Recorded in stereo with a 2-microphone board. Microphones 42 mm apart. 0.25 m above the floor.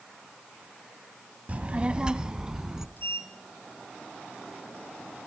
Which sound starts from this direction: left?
A sliding door, at 3.0 s.